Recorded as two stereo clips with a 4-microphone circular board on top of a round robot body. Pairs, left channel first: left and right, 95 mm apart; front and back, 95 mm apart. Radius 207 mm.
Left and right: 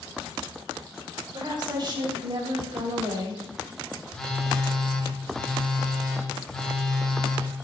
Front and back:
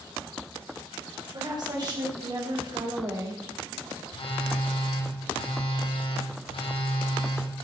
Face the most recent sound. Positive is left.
turn(degrees=5)